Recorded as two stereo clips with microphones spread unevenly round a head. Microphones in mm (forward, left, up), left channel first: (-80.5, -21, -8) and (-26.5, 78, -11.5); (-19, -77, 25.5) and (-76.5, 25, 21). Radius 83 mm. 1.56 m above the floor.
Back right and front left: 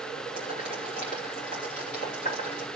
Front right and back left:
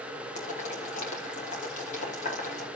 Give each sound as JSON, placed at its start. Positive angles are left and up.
{"t": 0.3, "sound": "boiling", "azimuth_deg": -70, "distance_m": 6.0}